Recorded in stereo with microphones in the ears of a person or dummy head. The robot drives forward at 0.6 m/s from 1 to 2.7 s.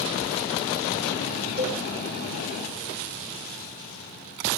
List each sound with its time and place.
1.6 s a cowbell: 5° left (ahead or behind), 4 m